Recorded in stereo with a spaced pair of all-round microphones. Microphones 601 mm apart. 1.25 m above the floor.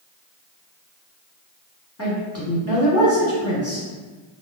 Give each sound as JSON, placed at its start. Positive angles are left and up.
{"t": 2.0, "sound": "a woman speaking", "side_deg": 25, "distance_m": 0.9}